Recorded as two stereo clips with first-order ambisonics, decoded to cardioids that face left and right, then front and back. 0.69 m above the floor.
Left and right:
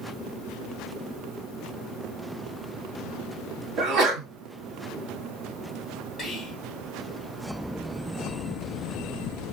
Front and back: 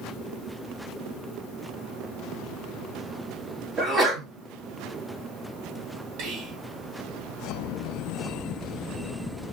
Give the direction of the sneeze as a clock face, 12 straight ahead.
3 o'clock.